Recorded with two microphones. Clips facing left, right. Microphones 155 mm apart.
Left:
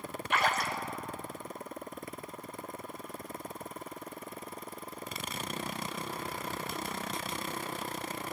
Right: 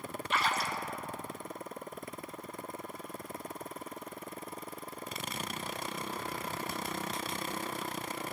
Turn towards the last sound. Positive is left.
turn(degrees=60)  # may be behind; listen again after turning